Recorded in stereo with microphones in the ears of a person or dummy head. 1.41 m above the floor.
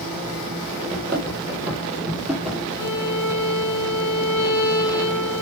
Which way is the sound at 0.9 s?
25° right (ahead or behind).